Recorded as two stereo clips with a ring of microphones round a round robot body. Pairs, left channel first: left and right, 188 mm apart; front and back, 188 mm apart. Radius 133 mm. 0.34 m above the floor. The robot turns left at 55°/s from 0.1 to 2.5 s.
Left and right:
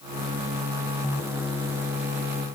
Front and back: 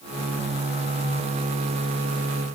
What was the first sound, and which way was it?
Only background noise.